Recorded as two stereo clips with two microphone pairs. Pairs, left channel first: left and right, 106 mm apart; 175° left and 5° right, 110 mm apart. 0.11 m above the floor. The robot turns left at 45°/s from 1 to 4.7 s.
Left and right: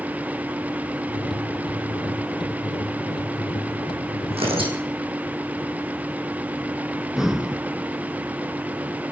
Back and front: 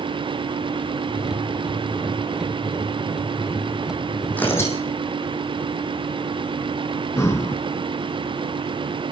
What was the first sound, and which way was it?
Tearing paper, 105° right.